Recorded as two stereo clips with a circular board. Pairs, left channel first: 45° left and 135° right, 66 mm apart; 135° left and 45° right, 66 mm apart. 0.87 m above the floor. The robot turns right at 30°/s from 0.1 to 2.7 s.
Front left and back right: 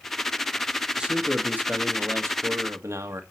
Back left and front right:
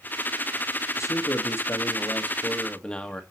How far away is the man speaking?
About 1.3 m.